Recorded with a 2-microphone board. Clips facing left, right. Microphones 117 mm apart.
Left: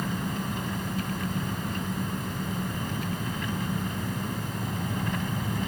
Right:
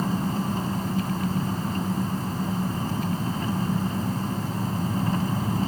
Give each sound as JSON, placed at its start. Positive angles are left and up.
{"t": 0.0, "sound": "an engine running", "side_deg": -35}